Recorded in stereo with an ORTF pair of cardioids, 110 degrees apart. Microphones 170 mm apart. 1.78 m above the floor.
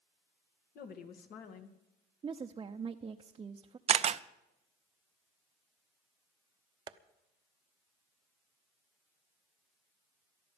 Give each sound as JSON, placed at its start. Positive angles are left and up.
{"t": 0.8, "sound": "a woman speaking", "azimuth_deg": 65, "distance_m": 2.5}
{"t": 2.2, "sound": "a woman speaking", "azimuth_deg": -25, "distance_m": 0.8}
{"t": 3.9, "sound": "a camera shutter", "azimuth_deg": -40, "distance_m": 0.6}
{"t": 6.9, "sound": "tapping", "azimuth_deg": -25, "distance_m": 0.9}